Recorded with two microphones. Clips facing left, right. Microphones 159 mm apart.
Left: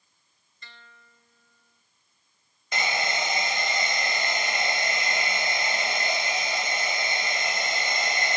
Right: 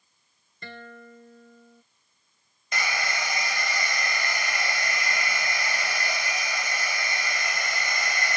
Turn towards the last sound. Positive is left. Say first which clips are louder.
# left 2 dB
turn(degrees=25)  # may be behind; listen again after turning